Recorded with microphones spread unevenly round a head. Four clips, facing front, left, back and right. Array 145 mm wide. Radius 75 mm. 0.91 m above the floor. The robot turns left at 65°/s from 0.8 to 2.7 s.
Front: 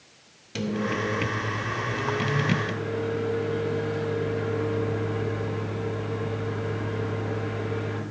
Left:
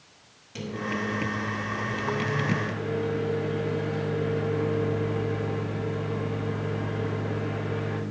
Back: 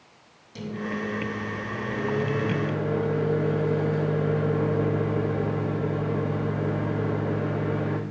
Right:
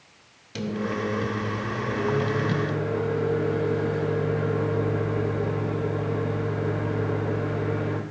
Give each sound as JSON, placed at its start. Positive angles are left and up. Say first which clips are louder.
{"t": 0.6, "sound": "a microwave", "louder": "right 3 dB, front 4 dB", "azimuth_deg": -25, "distance_m": 1.0}